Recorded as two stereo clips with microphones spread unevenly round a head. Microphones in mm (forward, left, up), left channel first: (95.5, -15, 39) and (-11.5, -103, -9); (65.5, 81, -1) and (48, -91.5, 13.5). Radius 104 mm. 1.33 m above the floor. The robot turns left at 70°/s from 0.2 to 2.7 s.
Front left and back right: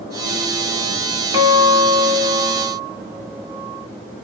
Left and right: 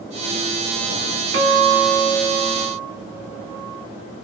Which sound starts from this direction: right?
A guitar, at 1.3 s.